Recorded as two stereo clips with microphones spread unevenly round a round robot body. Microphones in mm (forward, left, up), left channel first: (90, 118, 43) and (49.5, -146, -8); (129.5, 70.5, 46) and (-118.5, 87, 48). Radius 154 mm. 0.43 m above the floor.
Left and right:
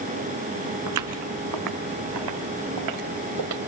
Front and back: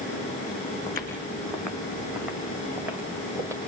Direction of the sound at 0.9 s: 80° right.